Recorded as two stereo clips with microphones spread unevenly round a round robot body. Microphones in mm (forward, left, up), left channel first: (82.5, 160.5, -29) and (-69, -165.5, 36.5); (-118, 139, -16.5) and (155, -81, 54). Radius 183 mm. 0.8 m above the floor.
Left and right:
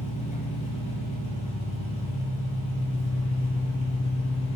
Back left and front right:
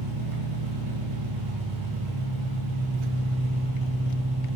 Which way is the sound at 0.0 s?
10° right.